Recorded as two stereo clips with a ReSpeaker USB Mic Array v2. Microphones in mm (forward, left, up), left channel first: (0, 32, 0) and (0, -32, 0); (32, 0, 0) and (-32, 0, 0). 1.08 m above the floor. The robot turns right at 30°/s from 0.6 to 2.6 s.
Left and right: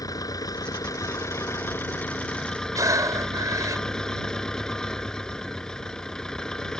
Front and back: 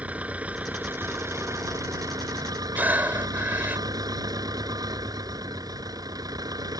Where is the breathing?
115° right.